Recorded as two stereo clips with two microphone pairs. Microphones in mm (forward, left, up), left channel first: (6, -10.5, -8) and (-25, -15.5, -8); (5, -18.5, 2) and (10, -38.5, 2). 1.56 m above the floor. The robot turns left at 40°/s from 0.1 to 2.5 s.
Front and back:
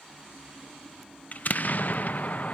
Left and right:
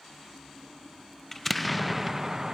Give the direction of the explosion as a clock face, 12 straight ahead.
11 o'clock.